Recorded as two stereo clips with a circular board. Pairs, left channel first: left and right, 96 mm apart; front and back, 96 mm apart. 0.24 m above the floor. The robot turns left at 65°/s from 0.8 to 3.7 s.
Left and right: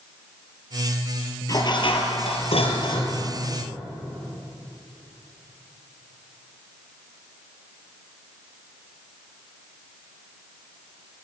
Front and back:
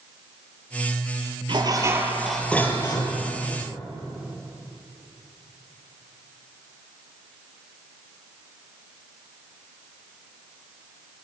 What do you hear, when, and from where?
1.5 s dishes clattering: 145° left, 3.5 m; by 3.2 s 35° left, 3.5 m